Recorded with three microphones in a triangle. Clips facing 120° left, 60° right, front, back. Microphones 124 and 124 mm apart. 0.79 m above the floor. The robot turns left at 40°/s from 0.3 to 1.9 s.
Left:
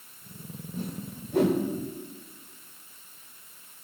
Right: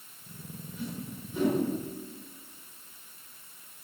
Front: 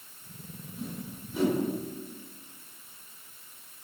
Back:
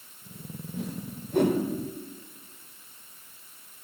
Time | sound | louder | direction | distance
0.8 | a whoosh | left 2 dB, back 3 dB | 170° left | 1.8 m